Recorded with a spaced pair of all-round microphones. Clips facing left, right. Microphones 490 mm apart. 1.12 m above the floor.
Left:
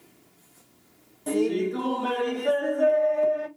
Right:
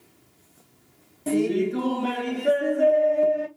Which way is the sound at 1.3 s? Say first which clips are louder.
Right 2 dB; 45° right (ahead or behind).